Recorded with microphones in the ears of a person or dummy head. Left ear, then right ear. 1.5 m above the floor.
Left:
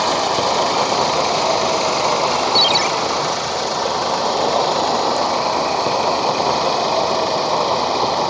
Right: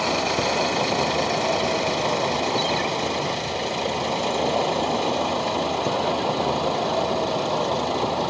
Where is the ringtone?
85° left.